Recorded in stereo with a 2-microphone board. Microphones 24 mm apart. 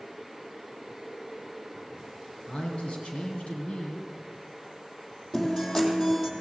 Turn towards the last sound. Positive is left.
turn(degrees=15)  # may be behind; listen again after turning